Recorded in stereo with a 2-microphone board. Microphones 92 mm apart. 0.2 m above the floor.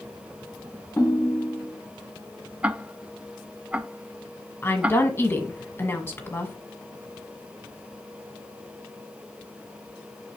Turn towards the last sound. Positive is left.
turn(degrees=25)  # may be behind; listen again after turning